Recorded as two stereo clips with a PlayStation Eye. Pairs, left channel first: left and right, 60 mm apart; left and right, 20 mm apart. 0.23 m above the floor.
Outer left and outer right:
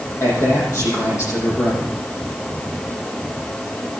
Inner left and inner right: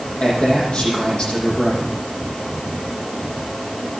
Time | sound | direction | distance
0.2 | a man speaking | 55° left (ahead or behind) | 8 m